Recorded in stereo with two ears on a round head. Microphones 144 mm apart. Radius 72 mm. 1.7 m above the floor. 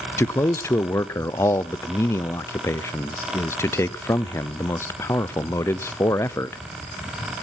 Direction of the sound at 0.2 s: 15° left (ahead or behind).